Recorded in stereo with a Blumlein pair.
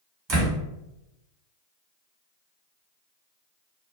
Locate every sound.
0.3 s a door slam: 30° right, 1.4 m